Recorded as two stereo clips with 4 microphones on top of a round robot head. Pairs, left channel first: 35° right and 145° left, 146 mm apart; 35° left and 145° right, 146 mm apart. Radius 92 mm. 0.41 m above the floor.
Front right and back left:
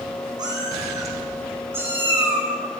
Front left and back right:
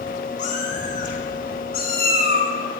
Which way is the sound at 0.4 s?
80° left.